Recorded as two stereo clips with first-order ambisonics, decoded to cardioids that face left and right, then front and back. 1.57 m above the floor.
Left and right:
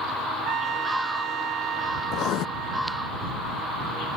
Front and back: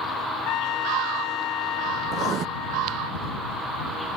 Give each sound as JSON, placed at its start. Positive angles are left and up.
{"t": 0.5, "sound": "a trumpet", "azimuth_deg": -35}
{"t": 2.1, "sound": "writing", "azimuth_deg": 125}